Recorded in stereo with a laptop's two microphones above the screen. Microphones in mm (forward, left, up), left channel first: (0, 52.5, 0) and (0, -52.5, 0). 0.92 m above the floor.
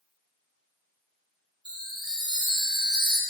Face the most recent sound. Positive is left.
turn(degrees=-45)  # may be behind; listen again after turning